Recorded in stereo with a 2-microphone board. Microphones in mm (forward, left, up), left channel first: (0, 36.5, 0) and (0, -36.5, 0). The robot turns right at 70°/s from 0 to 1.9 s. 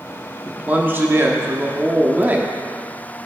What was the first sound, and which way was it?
A man speaking, 150° right.